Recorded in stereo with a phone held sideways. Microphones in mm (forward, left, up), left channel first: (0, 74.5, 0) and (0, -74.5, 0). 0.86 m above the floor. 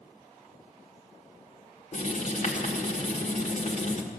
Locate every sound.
1.9 s writing: 55° left (ahead or behind), 1.6 m